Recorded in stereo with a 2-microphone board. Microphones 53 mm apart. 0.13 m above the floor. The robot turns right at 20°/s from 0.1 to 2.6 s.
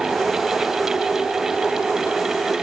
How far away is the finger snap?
No finger snap in this recording.